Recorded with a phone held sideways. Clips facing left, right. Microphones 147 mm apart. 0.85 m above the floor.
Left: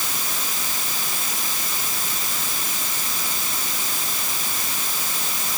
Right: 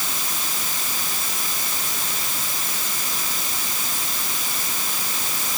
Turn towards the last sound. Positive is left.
No sound to turn to.